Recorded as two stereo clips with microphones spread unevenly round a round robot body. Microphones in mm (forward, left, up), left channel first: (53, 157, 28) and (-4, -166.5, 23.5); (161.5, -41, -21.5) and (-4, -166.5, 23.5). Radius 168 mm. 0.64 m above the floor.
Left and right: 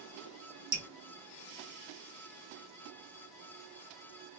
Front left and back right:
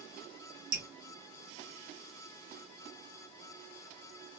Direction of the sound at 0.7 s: 175° right.